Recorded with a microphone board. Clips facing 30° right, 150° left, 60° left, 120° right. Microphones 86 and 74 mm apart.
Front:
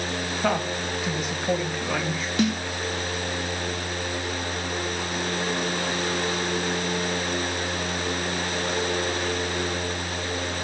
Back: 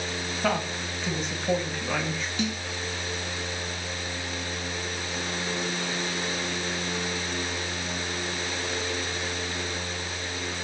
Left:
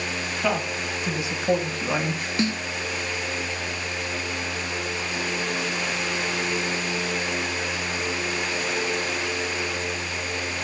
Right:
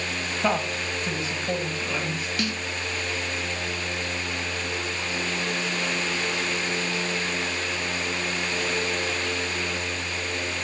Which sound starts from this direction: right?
A woman speaking, at 0.4 s.